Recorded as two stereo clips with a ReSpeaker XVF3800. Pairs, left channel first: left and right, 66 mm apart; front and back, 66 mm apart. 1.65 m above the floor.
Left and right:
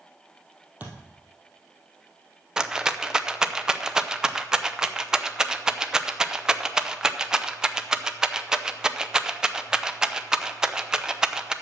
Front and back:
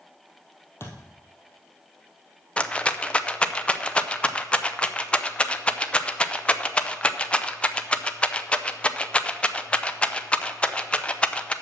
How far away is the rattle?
About 0.5 m.